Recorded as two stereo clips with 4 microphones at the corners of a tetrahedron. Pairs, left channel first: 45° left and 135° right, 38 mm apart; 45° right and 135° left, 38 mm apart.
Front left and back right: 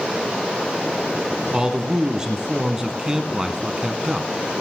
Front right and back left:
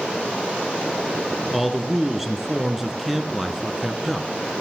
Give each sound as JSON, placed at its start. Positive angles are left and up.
{"t": 1.5, "sound": "a man speaking", "azimuth_deg": -150, "distance_m": 1.3}